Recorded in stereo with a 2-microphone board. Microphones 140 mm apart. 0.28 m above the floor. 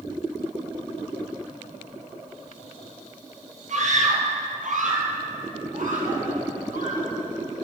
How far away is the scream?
About 6.5 m.